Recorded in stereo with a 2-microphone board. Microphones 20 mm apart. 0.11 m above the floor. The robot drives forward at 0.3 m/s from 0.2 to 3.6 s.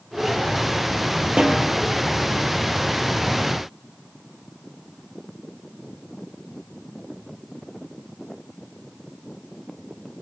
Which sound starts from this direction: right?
A snare drum, at 1.4 s.